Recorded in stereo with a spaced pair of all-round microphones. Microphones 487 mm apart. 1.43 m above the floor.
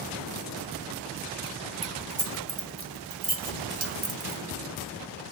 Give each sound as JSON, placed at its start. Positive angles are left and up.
{"t": 1.8, "sound": "keys jangling", "side_deg": -50, "distance_m": 1.2}